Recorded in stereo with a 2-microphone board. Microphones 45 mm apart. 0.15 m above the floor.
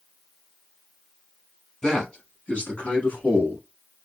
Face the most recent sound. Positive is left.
turn(degrees=40)  # may be behind; listen again after turning